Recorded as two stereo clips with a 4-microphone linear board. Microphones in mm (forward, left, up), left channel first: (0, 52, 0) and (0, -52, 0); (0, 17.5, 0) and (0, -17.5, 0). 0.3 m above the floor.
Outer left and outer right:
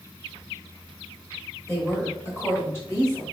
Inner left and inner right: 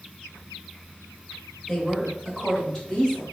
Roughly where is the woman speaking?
Left.